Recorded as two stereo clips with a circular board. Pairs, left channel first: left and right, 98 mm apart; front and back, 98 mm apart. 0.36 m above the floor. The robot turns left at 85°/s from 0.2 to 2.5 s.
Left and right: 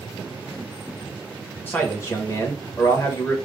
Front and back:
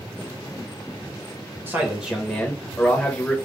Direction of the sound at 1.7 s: 135° left.